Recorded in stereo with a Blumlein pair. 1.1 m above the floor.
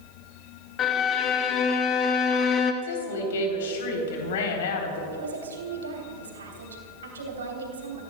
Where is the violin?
30° left, 1.2 m.